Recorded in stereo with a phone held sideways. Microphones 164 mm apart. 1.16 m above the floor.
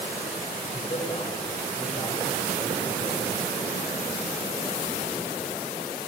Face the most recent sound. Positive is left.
turn(degrees=35)  # may be behind; listen again after turning